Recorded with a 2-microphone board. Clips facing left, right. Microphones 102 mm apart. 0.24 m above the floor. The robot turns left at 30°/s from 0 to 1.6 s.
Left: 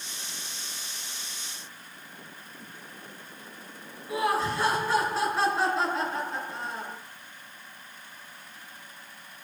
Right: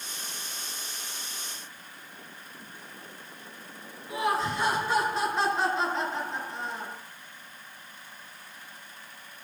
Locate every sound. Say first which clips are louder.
4.1 s laughter: left 1 dB; 5° left (ahead or behind), 3 m